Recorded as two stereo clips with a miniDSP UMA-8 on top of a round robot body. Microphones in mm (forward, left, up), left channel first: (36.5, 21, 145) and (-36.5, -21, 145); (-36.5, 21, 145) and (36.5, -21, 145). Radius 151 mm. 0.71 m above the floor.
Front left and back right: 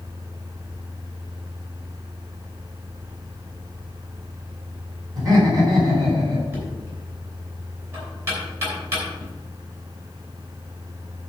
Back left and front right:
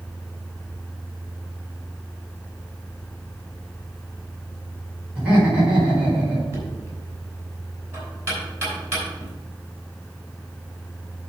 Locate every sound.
5.2 s laughter: 105° right, 4 m
6.5 s knocking: 95° right, 5.5 m